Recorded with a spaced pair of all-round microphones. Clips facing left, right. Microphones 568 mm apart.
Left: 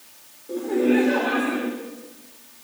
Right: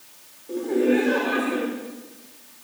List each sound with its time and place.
0.5 s laughter: centre (ahead or behind), 5.5 m; by 1.7 s 15° left (ahead or behind), 4.5 m